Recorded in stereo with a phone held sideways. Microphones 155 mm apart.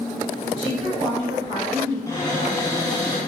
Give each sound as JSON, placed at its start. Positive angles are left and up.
{"t": 0.6, "sound": "a woman speaking", "side_deg": -30, "distance_m": 1.4}
{"t": 2.1, "sound": "a cupboard door", "side_deg": 20, "distance_m": 0.7}